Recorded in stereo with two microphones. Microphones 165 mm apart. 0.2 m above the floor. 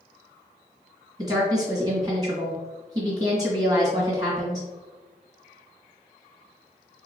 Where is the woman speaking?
25° right (ahead or behind), 2.0 m.